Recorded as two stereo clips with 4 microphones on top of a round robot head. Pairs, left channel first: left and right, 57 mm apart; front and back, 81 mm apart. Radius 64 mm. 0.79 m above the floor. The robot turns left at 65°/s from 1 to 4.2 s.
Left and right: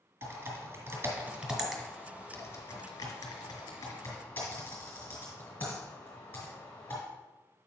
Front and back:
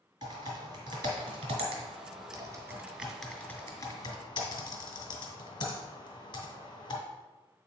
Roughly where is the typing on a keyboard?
Behind right.